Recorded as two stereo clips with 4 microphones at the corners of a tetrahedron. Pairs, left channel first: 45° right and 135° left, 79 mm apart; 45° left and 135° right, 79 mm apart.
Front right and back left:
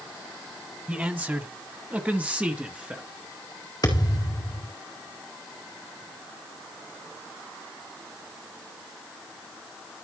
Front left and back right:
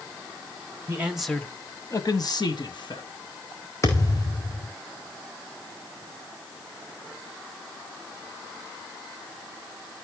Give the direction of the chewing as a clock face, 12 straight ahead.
I don't hear chewing.